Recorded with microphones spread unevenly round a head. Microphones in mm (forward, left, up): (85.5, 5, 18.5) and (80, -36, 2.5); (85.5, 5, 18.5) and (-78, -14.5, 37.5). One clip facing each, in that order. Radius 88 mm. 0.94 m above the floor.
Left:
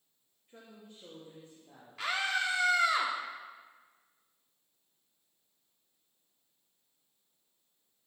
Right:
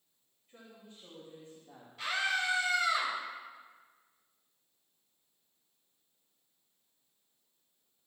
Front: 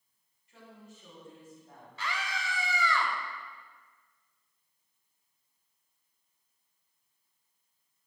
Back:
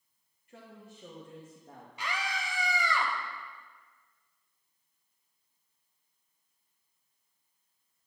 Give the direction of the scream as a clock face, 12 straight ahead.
8 o'clock.